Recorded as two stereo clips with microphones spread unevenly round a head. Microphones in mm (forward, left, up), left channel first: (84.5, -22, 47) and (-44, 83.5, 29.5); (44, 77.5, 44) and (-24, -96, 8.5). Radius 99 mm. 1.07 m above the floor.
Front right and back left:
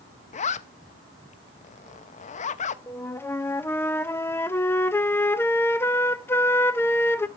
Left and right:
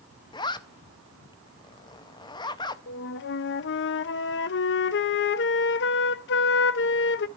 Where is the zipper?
5° left, 0.5 m.